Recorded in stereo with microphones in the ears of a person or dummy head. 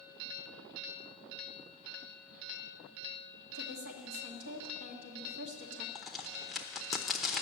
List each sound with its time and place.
3.5 s a woman speaking: 75° right (ahead or behind), 1.7 m
6.0 s a crack: centre (ahead or behind), 0.7 m